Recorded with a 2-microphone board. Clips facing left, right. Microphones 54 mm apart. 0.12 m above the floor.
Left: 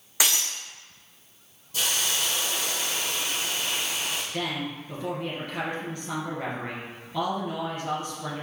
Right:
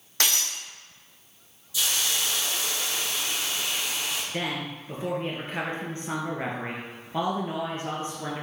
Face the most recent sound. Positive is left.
turn(degrees=-30)  # may be behind; listen again after turning